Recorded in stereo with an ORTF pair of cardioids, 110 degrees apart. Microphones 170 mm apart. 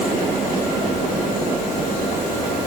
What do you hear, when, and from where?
Only background noise.